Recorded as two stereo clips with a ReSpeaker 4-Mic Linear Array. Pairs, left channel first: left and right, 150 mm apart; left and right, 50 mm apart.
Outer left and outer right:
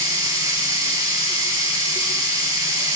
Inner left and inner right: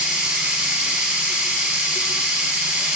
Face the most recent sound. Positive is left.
turn(degrees=-25)  # may be behind; listen again after turning